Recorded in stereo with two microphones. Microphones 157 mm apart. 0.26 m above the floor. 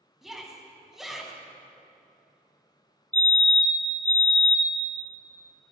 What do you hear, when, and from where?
0.2 s a shout: centre (ahead or behind), 2 m
3.1 s a fire alarm: 10° left (ahead or behind), 2.5 m